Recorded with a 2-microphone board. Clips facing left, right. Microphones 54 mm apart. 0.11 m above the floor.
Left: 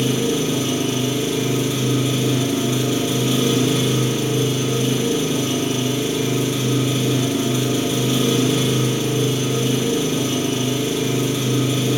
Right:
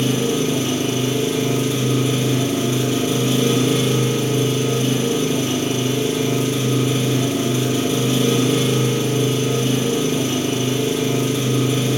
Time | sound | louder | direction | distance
0.0 | an engine running | right 1 dB | 35° right (ahead or behind) | 3 m